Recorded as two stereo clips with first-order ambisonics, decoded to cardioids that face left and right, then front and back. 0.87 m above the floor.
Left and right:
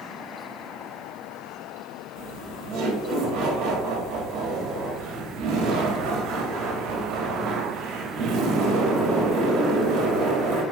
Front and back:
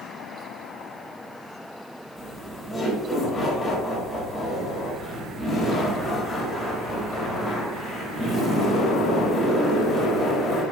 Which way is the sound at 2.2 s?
65° right.